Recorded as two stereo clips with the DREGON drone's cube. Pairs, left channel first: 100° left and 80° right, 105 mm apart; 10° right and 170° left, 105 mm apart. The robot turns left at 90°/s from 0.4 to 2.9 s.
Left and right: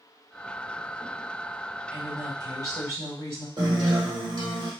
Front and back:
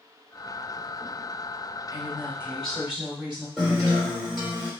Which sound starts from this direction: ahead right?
A woman speaking, at 1.9 s.